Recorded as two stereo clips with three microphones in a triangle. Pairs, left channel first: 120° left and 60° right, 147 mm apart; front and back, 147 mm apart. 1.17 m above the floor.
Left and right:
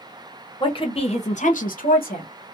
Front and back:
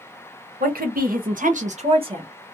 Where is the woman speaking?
Straight behind, 1.1 m; by 2.3 s 120° left, 0.9 m.